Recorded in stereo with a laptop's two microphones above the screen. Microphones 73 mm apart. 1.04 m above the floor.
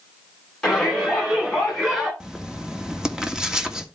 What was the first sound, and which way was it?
A shout, 10° left (ahead or behind).